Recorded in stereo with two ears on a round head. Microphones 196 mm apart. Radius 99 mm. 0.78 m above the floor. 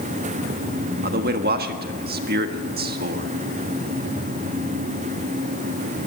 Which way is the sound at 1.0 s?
50° right (ahead or behind).